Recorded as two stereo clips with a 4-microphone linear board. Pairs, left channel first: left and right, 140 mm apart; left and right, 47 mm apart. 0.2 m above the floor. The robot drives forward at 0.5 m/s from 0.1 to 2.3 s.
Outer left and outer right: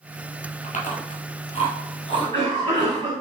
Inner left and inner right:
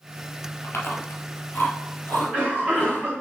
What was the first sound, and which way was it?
Chewing, 60° left (ahead or behind).